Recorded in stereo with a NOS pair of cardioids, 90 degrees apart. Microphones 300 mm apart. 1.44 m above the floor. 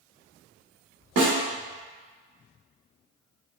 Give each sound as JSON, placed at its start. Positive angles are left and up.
{"t": 1.2, "sound": "a snare drum", "azimuth_deg": -55, "distance_m": 1.2}